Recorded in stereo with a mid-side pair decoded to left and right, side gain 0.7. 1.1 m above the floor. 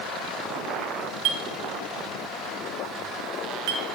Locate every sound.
1.2 s a clink: 70° right, 0.8 m